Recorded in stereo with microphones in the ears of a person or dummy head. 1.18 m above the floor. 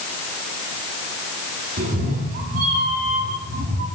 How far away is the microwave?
No microwave in this recording.